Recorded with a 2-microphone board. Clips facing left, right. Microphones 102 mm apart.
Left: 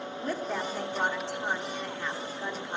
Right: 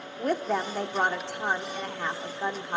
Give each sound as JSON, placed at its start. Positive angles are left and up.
{"t": 0.2, "sound": "a woman speaking", "side_deg": -65, "distance_m": 1.3}